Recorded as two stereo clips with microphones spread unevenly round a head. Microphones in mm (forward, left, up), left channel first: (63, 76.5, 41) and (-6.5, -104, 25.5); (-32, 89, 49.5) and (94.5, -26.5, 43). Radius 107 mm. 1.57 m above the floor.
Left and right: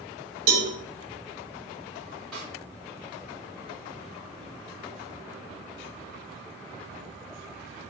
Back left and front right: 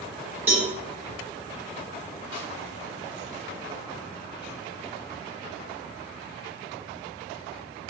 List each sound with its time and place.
0.5 s a cowbell: 125° right, 0.9 m
2.3 s a snare drum: 160° left, 2.5 m